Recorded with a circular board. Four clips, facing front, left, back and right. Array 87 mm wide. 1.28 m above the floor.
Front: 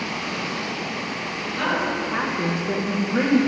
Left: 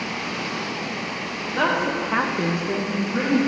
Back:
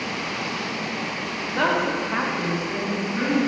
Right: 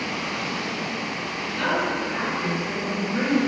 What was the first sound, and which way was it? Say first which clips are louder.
A woman speaking: left 3 dB, back 2 dB; 130° left.